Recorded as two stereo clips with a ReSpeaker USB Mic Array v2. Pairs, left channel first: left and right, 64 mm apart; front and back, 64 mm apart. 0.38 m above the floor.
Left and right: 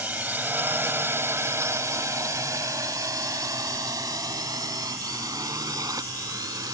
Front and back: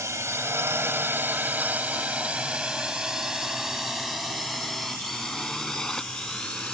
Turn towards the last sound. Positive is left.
turn(degrees=-75)